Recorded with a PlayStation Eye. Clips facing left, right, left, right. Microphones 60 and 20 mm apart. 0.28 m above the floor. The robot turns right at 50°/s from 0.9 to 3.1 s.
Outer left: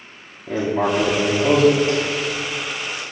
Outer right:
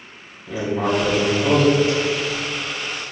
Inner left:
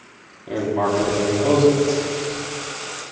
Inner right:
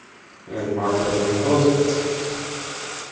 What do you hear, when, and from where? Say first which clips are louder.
0.5 s writing: outer left 2 dB, inner left 2 dB; 130° left, 1.7 m; by 2.4 s 155° right, 1.7 m